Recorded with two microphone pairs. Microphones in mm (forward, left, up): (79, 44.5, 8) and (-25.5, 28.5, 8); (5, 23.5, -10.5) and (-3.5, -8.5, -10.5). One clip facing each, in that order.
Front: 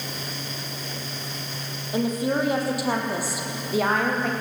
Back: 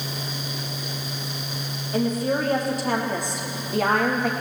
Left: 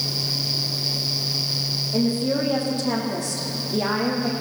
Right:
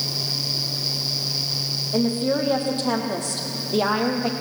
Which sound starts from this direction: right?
A woman speaking, at 1.9 s.